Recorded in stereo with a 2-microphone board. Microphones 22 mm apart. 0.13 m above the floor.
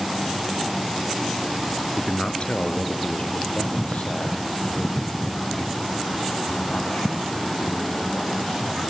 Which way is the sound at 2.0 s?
30° left (ahead or behind).